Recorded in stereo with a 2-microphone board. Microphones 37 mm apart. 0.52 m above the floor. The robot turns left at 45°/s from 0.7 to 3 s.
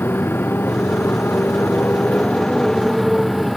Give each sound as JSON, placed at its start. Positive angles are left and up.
{"t": 0.0, "sound": "a motorcycle", "azimuth_deg": 110}